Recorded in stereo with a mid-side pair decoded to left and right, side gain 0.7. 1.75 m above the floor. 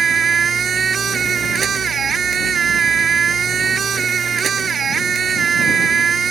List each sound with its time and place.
0.0 s a machine running: 30° right